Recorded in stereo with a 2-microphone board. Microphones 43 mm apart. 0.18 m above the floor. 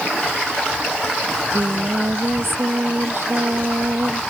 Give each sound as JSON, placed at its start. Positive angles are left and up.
{"t": 1.3, "sound": "singing", "side_deg": -70}